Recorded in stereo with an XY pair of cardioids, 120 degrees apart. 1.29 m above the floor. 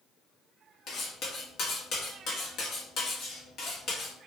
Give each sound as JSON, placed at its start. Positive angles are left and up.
{"t": 0.9, "sound": "cutlery clinking", "azimuth_deg": 65, "distance_m": 1.1}